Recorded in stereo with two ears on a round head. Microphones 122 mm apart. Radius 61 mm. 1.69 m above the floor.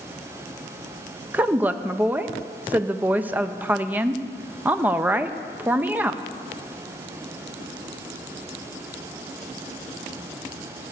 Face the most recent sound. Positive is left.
turn(degrees=-15)  # may be behind; listen again after turning